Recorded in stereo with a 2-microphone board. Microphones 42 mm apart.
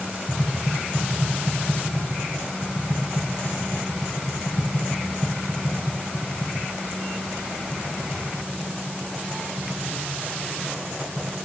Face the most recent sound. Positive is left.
turn(degrees=-70)  # may be behind; listen again after turning